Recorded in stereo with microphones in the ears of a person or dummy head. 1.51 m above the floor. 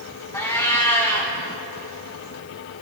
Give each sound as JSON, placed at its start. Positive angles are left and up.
{"t": 0.3, "sound": "a cat meowing", "side_deg": 10, "distance_m": 1.6}